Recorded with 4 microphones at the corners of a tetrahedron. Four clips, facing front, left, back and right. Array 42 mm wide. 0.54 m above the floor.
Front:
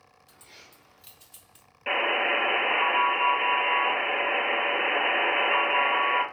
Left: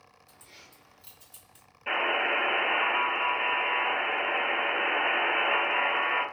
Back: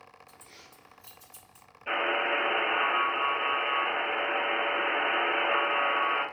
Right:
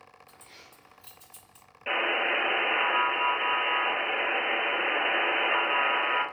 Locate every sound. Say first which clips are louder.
0.3 s keys jangling: left 2 dB, front 1 dB; 30° right, 1.9 m; by 1.7 s 15° left, 1.4 m
1.9 s a buzzer: even, front 3 dB; 25° right, 2.5 m